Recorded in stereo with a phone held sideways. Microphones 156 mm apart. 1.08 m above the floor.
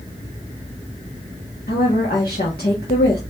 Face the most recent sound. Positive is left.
turn(degrees=80)